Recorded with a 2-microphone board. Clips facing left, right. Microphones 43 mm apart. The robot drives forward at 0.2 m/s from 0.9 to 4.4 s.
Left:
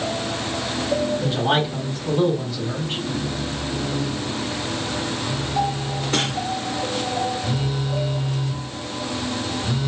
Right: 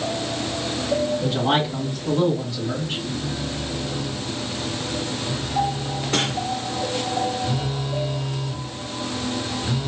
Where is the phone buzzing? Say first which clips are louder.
Left 2 dB; 15° left (ahead or behind), 1.0 m.